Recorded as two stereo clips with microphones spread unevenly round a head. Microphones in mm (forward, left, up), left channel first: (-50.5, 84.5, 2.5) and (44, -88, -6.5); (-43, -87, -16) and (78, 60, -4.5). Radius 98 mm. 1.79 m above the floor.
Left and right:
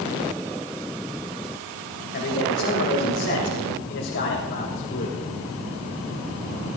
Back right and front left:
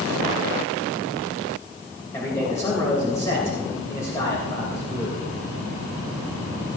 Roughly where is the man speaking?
Behind left.